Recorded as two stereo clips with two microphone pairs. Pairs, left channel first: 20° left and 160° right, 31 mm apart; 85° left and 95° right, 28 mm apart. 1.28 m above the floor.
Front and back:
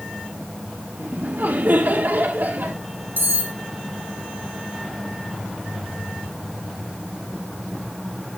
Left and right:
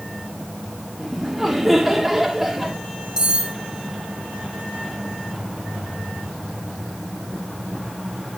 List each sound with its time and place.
1.0 s laughter: straight behind, 2.5 m
3.2 s cutlery clinking: 160° right, 2.5 m